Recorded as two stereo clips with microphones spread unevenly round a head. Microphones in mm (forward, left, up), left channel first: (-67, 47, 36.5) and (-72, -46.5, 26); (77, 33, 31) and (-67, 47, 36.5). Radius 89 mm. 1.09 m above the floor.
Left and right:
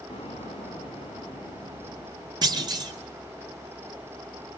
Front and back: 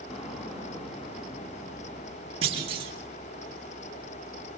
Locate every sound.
0.1 s an explosion: 40° left, 4.5 m
2.4 s a clunk: 130° right, 2.5 m